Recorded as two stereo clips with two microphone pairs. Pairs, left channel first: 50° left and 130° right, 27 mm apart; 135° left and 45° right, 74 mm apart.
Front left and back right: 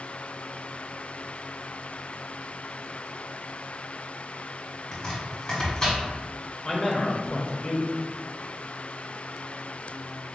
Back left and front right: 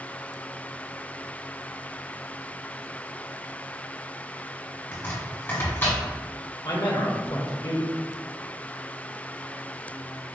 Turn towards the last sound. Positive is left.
turn(degrees=110)